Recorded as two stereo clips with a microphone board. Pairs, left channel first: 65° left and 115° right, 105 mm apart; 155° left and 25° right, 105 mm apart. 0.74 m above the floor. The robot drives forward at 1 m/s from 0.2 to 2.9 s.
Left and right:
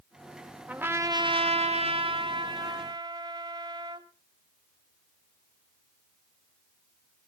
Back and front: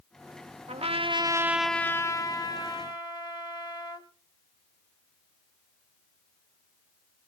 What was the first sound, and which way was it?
A trumpet, 35° right.